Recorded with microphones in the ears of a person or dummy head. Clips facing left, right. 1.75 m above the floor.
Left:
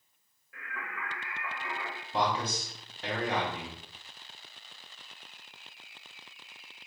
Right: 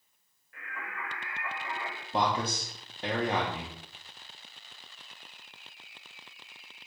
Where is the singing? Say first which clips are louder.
Even; 65° left (ahead or behind), 1.0 m.